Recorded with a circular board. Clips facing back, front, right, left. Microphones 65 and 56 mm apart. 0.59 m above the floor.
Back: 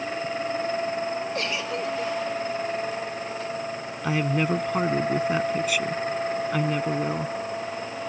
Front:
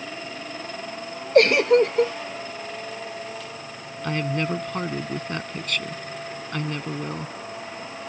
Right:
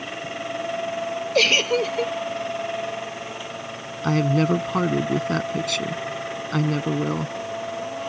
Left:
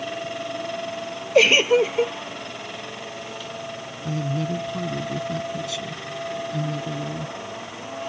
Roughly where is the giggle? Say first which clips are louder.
Front 13 dB, left 4 dB; ahead.